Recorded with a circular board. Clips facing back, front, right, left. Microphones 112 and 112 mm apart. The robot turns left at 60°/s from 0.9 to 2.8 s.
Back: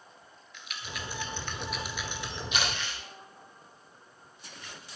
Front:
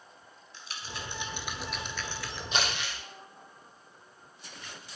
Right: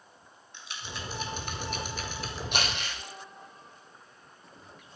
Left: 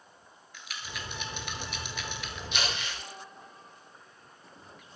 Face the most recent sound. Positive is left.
turn(degrees=-70)